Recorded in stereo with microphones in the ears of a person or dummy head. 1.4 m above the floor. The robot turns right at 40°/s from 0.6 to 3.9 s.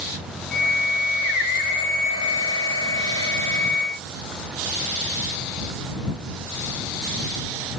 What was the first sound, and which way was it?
Only background noise.